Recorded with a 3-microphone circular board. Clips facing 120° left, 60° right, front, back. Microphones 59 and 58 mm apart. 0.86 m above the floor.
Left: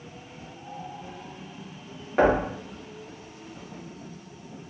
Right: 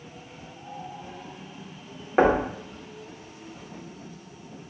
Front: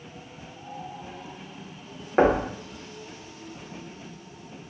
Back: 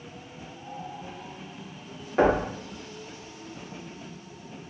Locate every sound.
2.2 s knocking: 10° right, 0.6 m